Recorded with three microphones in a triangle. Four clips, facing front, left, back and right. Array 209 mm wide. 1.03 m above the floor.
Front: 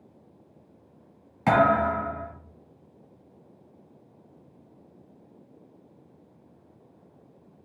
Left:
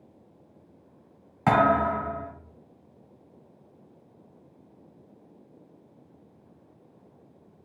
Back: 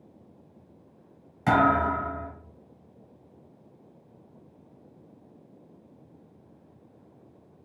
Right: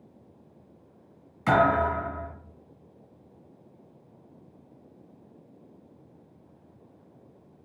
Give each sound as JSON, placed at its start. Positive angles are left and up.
{"t": 1.5, "sound": "a thud", "azimuth_deg": 75, "distance_m": 1.6}